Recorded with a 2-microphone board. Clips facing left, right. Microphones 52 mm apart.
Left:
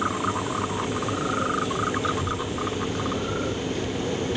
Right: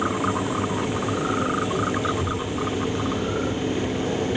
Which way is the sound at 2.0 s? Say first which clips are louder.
Right 1 dB; 10° right (ahead or behind).